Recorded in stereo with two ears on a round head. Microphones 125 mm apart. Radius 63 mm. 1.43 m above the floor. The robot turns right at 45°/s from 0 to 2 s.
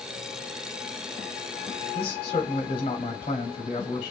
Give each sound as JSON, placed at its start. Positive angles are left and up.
{"t": 1.9, "sound": "a man speaking", "side_deg": 40, "distance_m": 0.7}